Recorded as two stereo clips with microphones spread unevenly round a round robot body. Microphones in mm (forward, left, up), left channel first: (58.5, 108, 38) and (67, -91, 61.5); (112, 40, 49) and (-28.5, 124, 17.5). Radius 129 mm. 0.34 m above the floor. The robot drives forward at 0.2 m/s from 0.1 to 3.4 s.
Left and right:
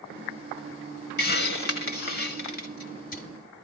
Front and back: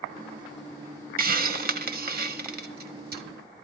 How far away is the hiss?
About 1.7 m.